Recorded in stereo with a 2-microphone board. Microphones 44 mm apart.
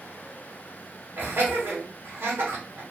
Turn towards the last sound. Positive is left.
turn(degrees=-65)  # may be behind; listen again after turning